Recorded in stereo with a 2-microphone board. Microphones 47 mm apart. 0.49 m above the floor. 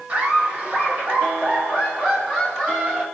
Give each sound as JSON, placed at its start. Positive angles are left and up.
{"t": 0.1, "sound": "laughter", "side_deg": -25, "distance_m": 1.5}